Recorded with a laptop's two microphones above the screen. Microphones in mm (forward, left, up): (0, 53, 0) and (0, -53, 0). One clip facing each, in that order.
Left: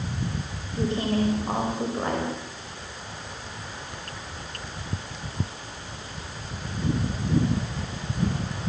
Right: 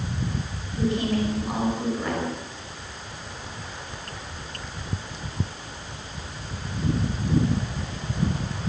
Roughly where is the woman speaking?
Left.